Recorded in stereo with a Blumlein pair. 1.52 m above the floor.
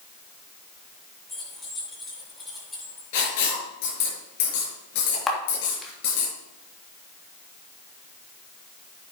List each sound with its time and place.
1.3 s keys jangling: 10° left, 7.5 m; by 3.0 s 5° left, 8.5 m
3.1 s writing: 50° left, 5.5 m
5.3 s a camera shutter: 10° left, 3 m